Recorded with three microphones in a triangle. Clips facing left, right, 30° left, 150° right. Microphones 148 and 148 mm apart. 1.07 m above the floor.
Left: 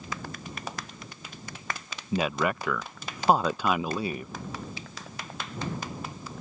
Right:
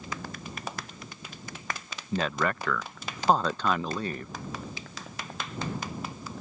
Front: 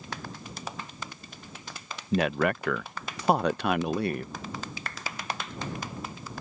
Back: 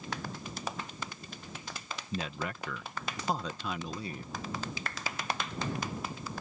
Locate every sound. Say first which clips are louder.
2.1 s a man speaking: left 2 dB, front 12 dB; 10° left